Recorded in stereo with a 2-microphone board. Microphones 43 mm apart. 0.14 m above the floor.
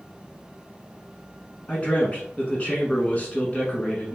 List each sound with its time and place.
1.7 s a man speaking: 30° left (ahead or behind), 1.1 m